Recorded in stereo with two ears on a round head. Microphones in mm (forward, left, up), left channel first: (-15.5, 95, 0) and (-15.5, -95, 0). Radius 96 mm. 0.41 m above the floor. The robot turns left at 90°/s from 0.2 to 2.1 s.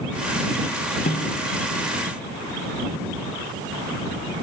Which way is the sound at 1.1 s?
145° left.